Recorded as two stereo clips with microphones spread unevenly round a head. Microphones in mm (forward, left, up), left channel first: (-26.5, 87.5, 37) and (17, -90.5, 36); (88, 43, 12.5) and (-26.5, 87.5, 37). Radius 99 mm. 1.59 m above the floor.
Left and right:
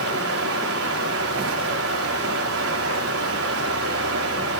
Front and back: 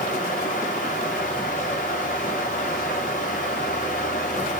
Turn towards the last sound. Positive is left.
turn(degrees=-70)